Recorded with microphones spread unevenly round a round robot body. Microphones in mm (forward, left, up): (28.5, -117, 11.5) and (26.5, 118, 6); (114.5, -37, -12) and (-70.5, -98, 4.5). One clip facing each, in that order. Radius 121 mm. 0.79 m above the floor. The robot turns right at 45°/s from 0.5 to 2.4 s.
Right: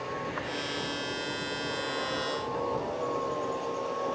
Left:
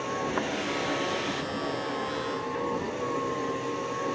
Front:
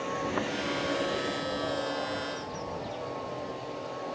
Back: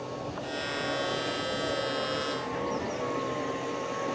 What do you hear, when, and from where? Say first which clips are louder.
0.0 s a vehicle: left 5 dB, front 4 dB; 65° left; by 4.2 s 150° left